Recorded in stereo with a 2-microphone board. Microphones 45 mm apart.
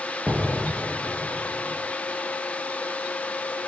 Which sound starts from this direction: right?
An explosion, at 0.3 s.